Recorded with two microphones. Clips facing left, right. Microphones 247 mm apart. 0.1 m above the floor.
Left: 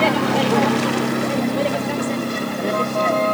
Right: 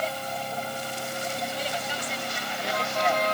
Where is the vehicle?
85° left; by 3.4 s 55° left (ahead or behind).